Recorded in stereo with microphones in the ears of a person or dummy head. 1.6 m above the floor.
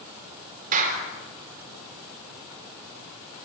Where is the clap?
40° right (ahead or behind), 4 m.